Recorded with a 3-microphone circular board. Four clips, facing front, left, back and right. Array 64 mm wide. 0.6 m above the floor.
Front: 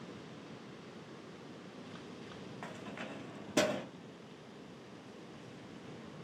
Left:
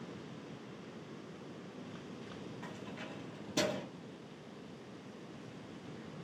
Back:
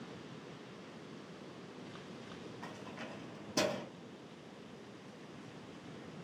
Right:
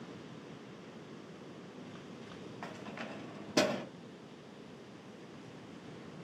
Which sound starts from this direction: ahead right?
Keys jangling, at 2.6 s.